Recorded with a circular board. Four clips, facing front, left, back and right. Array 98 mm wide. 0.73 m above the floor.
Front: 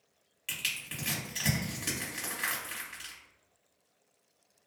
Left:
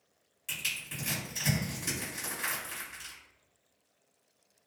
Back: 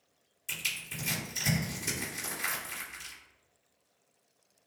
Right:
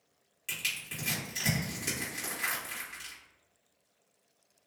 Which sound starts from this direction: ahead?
Crushing, at 0.5 s.